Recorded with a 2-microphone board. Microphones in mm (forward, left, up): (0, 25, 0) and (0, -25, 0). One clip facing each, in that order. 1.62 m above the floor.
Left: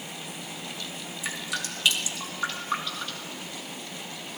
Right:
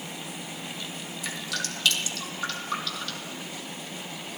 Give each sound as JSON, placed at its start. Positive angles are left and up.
{"t": 1.2, "sound": "dripping", "side_deg": 20, "distance_m": 3.5}